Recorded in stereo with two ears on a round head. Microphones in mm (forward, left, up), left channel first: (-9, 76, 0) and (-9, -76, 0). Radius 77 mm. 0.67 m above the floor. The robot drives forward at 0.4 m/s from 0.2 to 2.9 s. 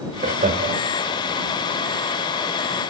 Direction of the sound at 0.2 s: 40° right (ahead or behind).